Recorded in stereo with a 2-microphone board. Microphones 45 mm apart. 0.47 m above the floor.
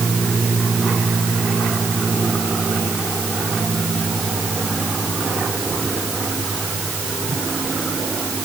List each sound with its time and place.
Only background noise.